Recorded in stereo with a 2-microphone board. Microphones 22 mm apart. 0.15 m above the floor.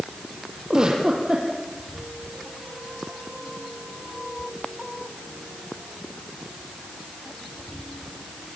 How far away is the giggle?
About 5.5 m.